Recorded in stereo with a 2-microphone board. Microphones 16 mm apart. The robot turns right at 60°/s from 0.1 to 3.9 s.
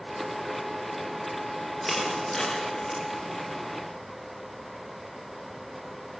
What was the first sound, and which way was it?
Crushing, 5° left (ahead or behind).